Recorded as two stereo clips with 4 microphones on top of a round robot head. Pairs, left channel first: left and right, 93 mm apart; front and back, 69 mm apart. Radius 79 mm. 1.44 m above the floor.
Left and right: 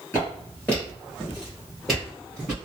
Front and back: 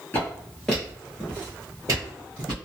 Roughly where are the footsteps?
Ahead left.